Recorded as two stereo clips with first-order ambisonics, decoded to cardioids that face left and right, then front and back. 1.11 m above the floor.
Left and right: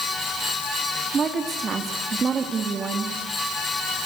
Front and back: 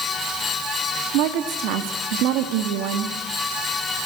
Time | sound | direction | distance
1.1 | a woman speaking | 160° right | 1.7 m